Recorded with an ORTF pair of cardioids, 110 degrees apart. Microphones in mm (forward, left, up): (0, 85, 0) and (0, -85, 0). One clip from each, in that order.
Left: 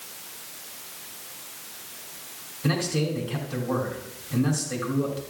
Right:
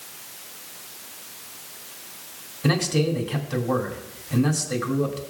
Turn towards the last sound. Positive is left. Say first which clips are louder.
# right 4 dB
turn(degrees=-25)